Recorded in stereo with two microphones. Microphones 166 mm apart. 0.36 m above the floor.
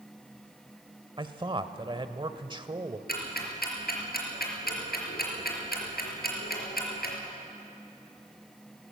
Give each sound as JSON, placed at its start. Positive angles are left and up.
{"t": 1.2, "sound": "a man speaking", "side_deg": -30, "distance_m": 1.1}
{"t": 3.1, "sound": "ticking", "side_deg": 80, "distance_m": 4.0}